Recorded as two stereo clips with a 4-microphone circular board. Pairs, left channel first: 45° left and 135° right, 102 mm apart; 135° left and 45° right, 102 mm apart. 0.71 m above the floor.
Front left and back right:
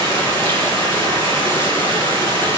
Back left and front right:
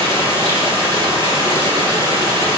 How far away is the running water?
About 5 m.